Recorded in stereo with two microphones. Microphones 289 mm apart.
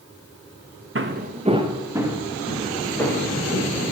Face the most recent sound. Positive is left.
turn(degrees=5)  # may be behind; listen again after turning